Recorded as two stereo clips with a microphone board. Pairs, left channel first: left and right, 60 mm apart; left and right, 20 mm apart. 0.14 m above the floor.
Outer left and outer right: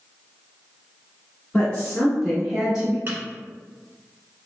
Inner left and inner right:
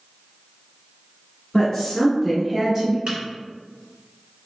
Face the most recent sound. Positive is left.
turn(degrees=-40)  # may be behind; listen again after turning